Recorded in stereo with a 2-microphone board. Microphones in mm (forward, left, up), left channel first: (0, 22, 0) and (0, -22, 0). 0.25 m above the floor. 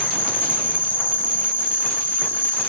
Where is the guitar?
I don't hear a guitar.